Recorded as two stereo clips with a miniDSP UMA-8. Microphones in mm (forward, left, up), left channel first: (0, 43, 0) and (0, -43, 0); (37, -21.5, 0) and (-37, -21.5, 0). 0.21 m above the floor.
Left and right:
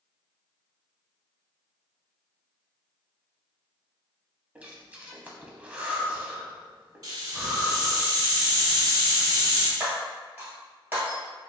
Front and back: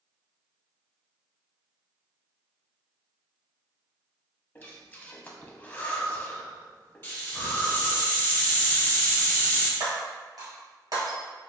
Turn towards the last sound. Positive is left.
turn(degrees=-160)